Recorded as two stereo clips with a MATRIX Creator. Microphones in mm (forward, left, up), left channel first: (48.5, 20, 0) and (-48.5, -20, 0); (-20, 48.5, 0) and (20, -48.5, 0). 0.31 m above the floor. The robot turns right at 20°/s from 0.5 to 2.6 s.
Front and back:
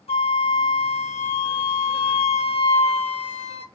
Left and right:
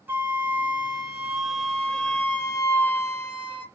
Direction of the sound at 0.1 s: 5° left.